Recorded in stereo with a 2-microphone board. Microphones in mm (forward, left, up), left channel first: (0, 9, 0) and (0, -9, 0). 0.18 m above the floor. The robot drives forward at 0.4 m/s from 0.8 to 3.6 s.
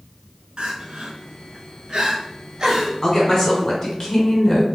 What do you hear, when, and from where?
0.6 s crying: 65° right (ahead or behind), 0.6 m; by 2.9 s 35° right (ahead or behind), 1.0 m
3.0 s a woman speaking: 25° left (ahead or behind), 1.3 m